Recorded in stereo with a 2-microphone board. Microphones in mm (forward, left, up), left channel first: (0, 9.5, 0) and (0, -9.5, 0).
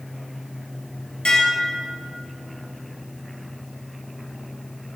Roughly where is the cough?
No cough in this recording.